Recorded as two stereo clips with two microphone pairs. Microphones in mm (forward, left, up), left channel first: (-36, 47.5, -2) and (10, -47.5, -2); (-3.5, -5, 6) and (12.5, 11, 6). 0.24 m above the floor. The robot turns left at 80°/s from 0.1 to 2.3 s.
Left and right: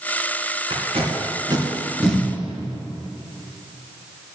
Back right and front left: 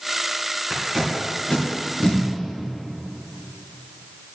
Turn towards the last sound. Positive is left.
turn(degrees=-170)